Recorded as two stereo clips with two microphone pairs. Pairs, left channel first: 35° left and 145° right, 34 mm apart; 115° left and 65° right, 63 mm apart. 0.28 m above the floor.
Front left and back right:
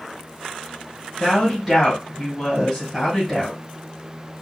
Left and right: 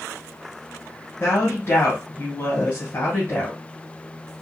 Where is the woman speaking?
125° left, 1.5 m.